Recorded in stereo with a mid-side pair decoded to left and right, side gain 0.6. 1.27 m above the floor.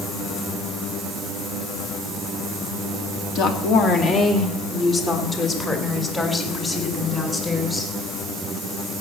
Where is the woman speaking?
65° left, 2.5 m; by 7.9 s 15° left, 5.5 m.